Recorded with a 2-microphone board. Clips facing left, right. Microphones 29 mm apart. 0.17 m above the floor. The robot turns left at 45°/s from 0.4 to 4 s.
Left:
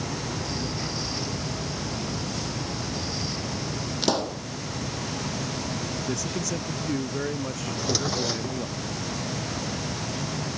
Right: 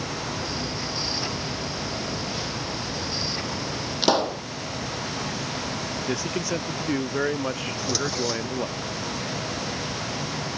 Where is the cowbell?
I don't hear a cowbell.